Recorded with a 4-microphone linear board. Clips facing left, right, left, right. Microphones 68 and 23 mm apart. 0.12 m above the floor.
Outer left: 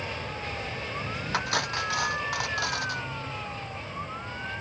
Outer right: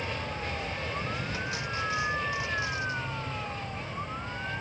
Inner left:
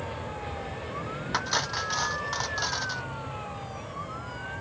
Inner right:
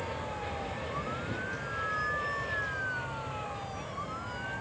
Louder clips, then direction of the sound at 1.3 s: Outer left 5 dB, inner left 7 dB; 70° left (ahead or behind).